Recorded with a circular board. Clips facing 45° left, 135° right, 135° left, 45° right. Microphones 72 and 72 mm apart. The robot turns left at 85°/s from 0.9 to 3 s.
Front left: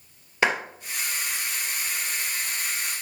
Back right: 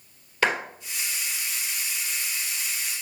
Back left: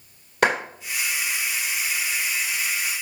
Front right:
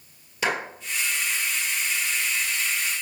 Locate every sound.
0.4 s a clap: 115° left, 3 m